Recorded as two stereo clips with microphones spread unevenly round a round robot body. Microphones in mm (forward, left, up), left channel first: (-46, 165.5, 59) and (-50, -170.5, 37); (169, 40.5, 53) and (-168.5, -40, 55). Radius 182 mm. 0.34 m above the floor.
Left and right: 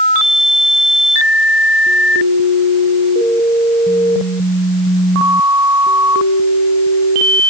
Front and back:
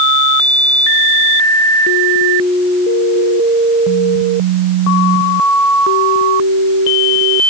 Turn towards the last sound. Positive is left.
No sound to turn to.